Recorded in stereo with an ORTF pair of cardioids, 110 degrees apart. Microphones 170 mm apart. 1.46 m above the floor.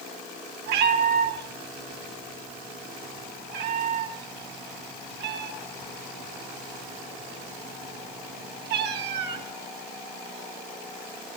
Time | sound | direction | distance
0.7 | a cat meowing | 70° right | 4 m